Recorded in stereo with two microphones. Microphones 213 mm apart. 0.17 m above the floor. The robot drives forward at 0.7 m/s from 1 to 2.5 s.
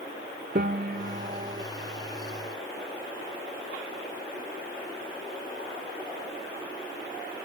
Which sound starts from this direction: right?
A piano, at 0.6 s.